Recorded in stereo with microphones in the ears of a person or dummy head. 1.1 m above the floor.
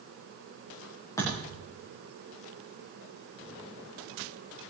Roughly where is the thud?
Centre.